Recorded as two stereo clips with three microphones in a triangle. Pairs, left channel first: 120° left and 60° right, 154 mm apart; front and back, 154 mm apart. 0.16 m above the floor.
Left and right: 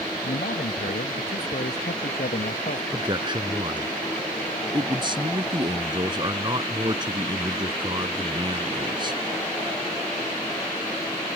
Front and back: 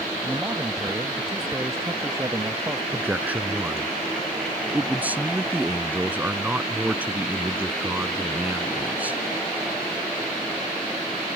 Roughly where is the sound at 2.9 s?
Right.